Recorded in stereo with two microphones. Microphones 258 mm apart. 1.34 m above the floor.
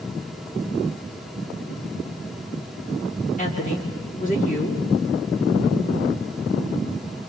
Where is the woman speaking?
30° left (ahead or behind), 4 m.